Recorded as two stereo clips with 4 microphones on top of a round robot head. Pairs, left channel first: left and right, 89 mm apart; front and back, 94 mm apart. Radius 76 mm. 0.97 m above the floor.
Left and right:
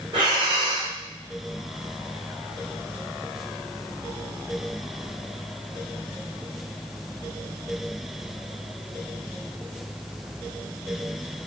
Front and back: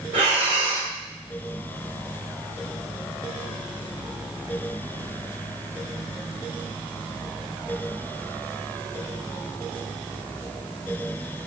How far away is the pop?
No pop in this recording.